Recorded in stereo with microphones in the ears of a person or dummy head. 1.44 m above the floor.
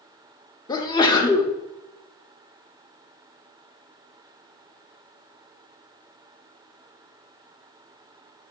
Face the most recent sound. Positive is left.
turn(degrees=20)  # may be behind; listen again after turning